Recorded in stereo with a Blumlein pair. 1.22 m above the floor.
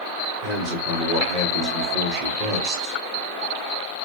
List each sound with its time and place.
0.4 s a man speaking: 45° right, 2 m